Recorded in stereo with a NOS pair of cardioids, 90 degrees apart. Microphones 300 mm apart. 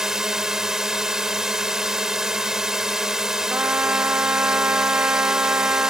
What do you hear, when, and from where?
0.0 s a drone: straight ahead
3.5 s a trumpet: 5° right